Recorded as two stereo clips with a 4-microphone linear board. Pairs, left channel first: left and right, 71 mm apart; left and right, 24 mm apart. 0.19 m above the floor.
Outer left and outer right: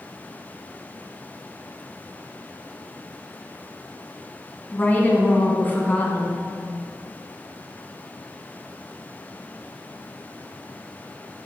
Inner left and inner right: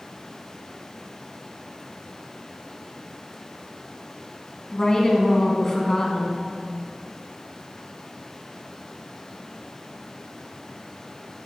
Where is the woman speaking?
30° left (ahead or behind), 1.9 m.